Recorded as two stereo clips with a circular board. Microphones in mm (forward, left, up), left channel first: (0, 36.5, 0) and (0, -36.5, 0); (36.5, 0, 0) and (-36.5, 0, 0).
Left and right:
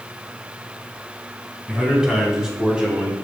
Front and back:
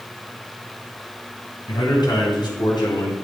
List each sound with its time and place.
1.7 s a man speaking: 5° right, 6.5 m; by 3.1 s 15° right, 6 m